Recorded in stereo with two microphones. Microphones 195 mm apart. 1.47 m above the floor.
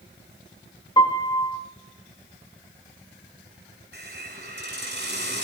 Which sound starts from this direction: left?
A piano, at 1.0 s.